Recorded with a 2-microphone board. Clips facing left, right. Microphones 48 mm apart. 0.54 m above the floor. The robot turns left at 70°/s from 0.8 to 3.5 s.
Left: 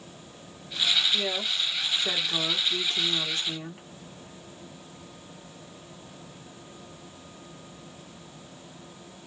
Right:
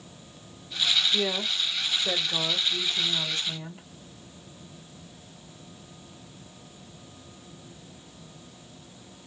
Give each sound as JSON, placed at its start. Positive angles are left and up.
{"t": 1.1, "sound": "a woman speaking", "azimuth_deg": -155, "distance_m": 1.3}